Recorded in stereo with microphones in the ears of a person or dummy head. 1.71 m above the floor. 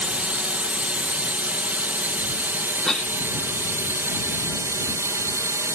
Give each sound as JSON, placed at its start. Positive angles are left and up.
{"t": 0.0, "sound": "a drone", "side_deg": -5}
{"t": 2.9, "sound": "a cough", "side_deg": 5}